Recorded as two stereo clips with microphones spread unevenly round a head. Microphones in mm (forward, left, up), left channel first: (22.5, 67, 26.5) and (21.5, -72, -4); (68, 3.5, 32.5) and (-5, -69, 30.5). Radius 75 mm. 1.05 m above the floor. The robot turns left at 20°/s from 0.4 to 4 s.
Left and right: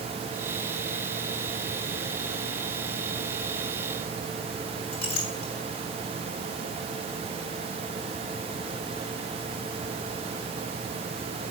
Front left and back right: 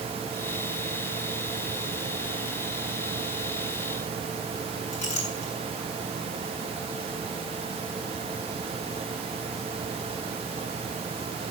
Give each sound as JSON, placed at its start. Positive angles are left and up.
{"t": 4.9, "sound": "a clink", "azimuth_deg": 45, "distance_m": 7.0}